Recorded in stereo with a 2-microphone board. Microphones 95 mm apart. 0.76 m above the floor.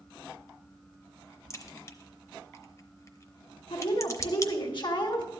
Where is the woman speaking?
55° left (ahead or behind), 1.3 m.